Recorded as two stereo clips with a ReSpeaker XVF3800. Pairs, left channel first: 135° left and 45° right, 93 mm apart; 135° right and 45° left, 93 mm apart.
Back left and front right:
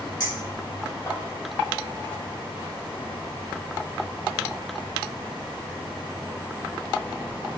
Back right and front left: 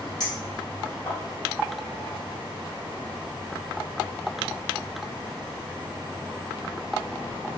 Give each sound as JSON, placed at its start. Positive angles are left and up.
{"t": 0.2, "sound": "a clink", "azimuth_deg": 180, "distance_m": 1.9}